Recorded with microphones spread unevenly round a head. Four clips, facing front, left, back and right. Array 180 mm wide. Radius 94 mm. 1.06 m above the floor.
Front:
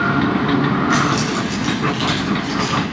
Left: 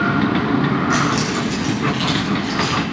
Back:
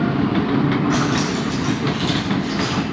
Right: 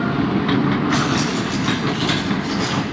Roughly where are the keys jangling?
Ahead left.